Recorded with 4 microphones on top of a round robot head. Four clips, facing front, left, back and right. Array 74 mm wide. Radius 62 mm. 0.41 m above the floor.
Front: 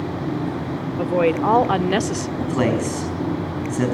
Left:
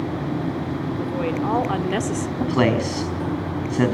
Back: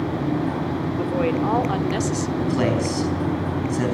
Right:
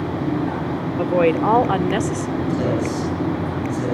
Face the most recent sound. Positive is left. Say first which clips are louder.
# left 3 dB, front 2 dB
turn(degrees=75)